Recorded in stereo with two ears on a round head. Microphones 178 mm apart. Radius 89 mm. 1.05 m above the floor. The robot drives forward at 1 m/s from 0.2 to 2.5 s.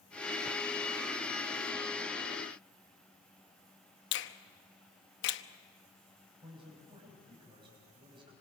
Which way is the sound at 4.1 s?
65° left (ahead or behind).